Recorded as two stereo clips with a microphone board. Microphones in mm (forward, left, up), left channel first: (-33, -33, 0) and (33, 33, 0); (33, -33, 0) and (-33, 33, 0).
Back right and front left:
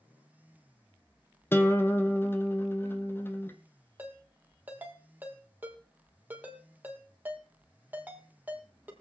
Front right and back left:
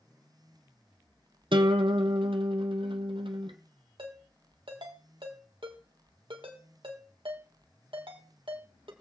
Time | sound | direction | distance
1.5 | a guitar | 160° left | 1.1 m
4.0 | a ringtone | 115° left | 2.5 m